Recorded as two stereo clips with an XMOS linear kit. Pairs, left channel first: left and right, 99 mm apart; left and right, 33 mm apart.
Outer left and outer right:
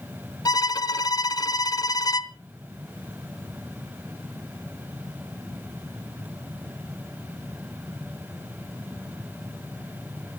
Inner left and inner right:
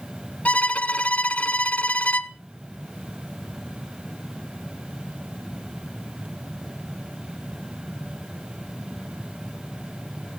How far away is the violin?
About 1.1 m.